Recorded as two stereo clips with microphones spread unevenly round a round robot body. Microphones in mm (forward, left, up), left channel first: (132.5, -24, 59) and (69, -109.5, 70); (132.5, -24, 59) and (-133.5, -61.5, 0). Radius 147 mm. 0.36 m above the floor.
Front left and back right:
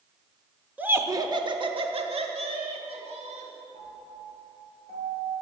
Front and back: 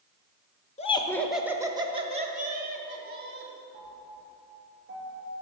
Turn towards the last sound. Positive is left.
turn(degrees=-130)